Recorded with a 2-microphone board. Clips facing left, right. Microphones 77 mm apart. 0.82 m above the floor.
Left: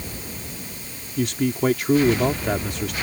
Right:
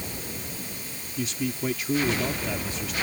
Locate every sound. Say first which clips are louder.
1.2 s a man speaking: left 7 dB; 65° left (ahead or behind)